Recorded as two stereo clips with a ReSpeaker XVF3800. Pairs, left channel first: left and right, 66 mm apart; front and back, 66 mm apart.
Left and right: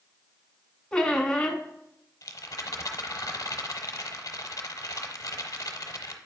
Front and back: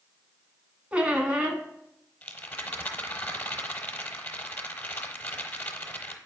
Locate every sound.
0.9 s a squeak: 145° left, 0.7 m
2.2 s a rattle: 60° left, 0.8 m